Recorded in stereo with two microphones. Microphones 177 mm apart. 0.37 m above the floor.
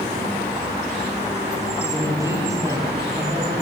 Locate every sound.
1.8 s a man speaking: 20° right (ahead or behind), 9 m; by 3.5 s 10° right (ahead or behind), 9.5 m